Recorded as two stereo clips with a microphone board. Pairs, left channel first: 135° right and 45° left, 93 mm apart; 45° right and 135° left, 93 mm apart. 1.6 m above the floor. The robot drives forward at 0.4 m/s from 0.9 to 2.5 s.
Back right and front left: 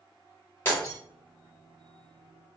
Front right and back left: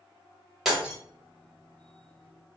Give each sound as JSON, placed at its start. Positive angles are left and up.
{"t": 0.7, "sound": "breaking glass", "azimuth_deg": -140, "distance_m": 1.3}